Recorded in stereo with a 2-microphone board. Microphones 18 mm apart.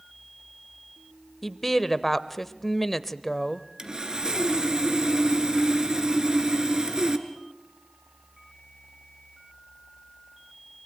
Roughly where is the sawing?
Right.